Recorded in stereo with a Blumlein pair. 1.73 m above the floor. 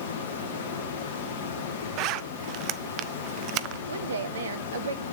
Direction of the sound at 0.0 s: 55° left.